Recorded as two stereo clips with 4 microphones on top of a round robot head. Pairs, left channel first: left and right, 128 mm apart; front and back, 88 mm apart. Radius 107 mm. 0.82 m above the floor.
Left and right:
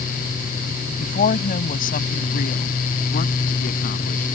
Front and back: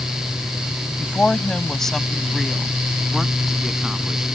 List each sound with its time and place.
1.0 s a woman speaking: 80° left; by 4.2 s 95° left